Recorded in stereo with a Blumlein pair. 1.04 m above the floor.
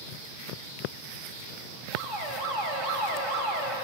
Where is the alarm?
40° right, 6.5 m.